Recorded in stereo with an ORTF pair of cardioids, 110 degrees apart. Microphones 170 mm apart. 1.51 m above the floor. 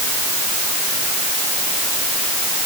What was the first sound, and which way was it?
Only background noise.